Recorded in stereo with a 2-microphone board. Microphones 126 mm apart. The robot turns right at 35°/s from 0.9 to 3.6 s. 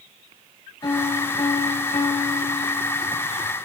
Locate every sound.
0.8 s a piano: 45° left, 3 m; by 3.2 s 120° left, 3 m